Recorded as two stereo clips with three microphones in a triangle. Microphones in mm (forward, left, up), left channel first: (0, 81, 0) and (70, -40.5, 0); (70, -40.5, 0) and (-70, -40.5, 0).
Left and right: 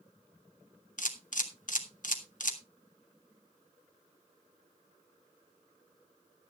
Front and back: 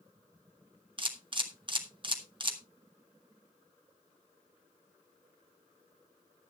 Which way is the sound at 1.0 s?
130° left.